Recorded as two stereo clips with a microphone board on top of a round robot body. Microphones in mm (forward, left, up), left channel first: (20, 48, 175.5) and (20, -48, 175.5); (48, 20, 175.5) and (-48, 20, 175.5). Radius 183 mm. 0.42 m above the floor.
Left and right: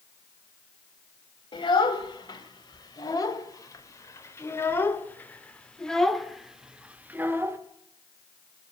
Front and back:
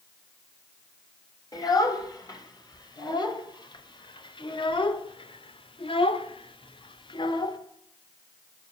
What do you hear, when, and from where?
1.5 s a child speaking: 50° left, 3 m; by 7.6 s 30° right, 1.6 m